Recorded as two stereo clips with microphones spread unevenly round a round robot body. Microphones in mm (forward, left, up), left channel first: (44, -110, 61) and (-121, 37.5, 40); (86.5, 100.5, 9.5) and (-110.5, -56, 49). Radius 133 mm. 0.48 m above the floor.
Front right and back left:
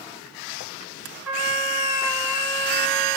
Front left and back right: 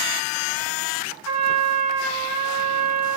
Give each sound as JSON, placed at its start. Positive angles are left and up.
{"t": 1.2, "sound": "a trumpet", "azimuth_deg": -140, "distance_m": 1.0}